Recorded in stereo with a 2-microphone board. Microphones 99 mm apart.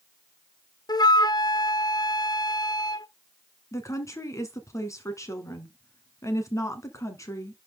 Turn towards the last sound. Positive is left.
turn(degrees=30)  # may be behind; listen again after turning